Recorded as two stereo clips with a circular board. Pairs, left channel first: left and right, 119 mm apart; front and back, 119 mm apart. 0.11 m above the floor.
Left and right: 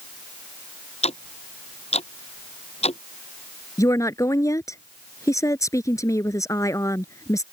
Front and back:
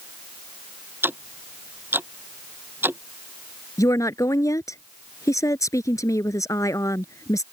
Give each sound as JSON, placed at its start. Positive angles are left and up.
{"t": 1.0, "sound": "ticking", "azimuth_deg": 110}
{"t": 3.8, "sound": "a woman speaking", "azimuth_deg": 45}